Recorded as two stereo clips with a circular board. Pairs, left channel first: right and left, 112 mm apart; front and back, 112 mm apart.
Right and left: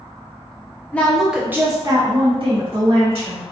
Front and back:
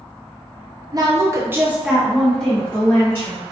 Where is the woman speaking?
160° right, 0.7 m; by 3.4 s 70° left, 1.4 m.